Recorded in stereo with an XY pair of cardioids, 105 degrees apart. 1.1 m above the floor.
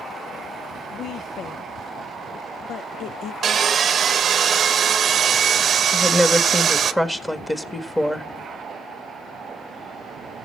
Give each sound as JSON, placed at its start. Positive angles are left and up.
{"t": 0.9, "sound": "a woman speaking", "azimuth_deg": 70, "distance_m": 0.6}
{"t": 3.4, "sound": "sawing", "azimuth_deg": -50, "distance_m": 0.8}
{"t": 5.9, "sound": "a woman speaking", "azimuth_deg": 10, "distance_m": 1.5}